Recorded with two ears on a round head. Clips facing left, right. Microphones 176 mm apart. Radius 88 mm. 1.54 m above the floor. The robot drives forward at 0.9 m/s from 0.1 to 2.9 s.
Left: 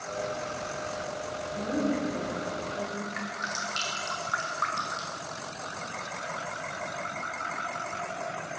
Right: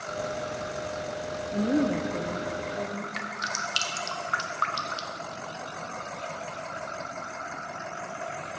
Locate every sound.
1.5 s a woman speaking: 55° right (ahead or behind), 0.7 m; by 3.0 s 20° right (ahead or behind), 1.5 m
3.1 s dripping: 45° right (ahead or behind), 1.0 m